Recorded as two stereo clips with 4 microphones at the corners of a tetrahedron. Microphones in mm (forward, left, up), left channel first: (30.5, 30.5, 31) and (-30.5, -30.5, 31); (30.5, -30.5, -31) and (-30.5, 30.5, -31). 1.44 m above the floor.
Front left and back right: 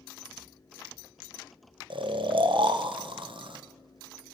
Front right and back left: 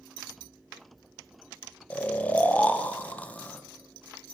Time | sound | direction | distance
1.9 | snoring | 115° right | 0.8 m